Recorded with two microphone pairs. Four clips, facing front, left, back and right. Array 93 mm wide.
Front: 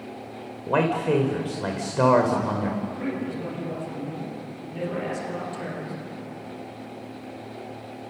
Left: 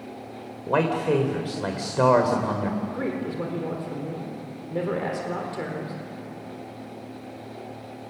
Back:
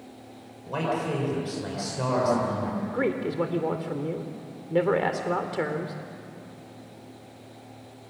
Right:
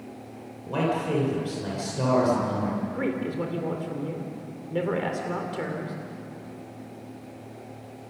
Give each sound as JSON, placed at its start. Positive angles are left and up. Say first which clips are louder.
{"t": 0.7, "sound": "a man speaking", "louder": "left 4 dB, front 6 dB", "azimuth_deg": 50, "distance_m": 3.0}
{"t": 2.9, "sound": "a man speaking", "louder": "even, back 3 dB", "azimuth_deg": -175, "distance_m": 3.0}